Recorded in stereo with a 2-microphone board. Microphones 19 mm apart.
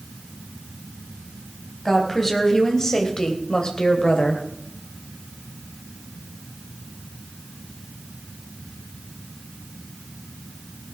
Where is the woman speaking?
20° left (ahead or behind), 4.5 m; by 4.4 s 60° left (ahead or behind), 3 m.